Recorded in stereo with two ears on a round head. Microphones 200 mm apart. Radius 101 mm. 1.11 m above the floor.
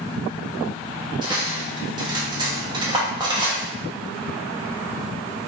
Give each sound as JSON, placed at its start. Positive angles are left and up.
{"t": 1.2, "sound": "cutlery clinking", "side_deg": -20, "distance_m": 0.8}